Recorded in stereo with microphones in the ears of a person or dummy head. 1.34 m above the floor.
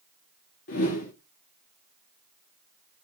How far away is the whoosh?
About 1.2 m.